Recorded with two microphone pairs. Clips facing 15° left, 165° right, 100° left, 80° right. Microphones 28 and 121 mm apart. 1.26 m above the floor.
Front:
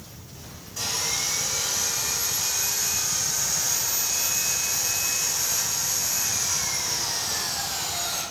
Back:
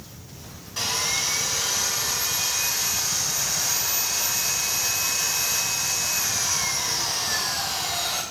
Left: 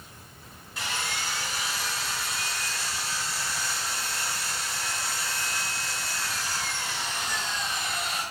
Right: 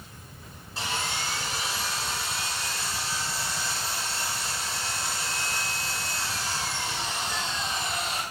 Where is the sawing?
140° right, 3.5 m.